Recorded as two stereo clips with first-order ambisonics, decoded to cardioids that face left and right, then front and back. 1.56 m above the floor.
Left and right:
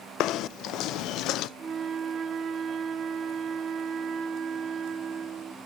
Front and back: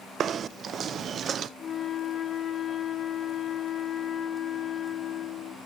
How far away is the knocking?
About 0.5 m.